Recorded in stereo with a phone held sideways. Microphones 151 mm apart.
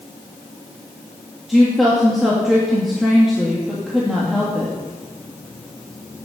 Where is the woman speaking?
Centre (ahead or behind), 2.5 m.